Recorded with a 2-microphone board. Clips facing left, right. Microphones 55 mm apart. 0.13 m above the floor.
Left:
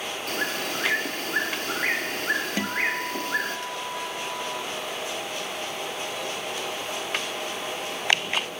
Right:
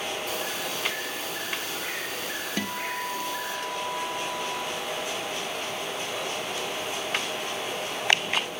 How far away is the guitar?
About 1.2 m.